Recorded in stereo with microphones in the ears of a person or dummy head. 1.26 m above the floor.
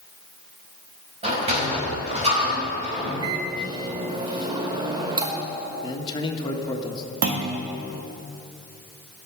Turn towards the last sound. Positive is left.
turn(degrees=-50)  # may be behind; listen again after turning